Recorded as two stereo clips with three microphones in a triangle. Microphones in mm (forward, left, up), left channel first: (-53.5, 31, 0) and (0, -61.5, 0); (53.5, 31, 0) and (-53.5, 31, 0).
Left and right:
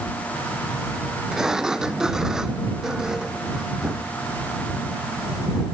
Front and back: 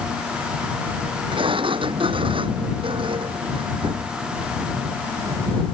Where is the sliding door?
145° right.